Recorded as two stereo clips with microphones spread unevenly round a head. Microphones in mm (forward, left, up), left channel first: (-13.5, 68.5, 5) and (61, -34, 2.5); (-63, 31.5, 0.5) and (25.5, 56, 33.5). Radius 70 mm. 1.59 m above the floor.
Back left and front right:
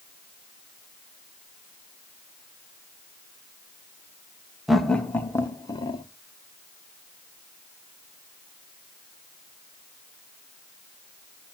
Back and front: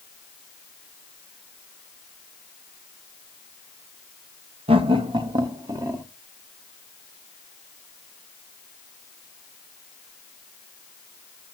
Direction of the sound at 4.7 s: 35° left.